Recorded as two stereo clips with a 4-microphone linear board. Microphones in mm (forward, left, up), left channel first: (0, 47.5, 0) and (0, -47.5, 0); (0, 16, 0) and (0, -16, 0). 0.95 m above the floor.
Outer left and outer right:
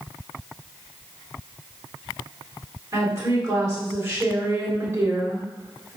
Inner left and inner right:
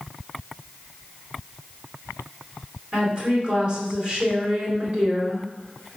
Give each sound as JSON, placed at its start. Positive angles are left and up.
{"t": 2.9, "sound": "a woman speaking", "side_deg": -30, "distance_m": 3.5}